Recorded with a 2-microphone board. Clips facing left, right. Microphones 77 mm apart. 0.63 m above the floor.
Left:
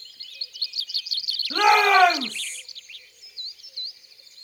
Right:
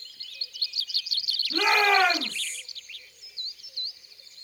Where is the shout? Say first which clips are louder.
Left 5 dB; 70° left (ahead or behind), 4.5 m; by 2.6 s 75° left (ahead or behind), 3.5 m.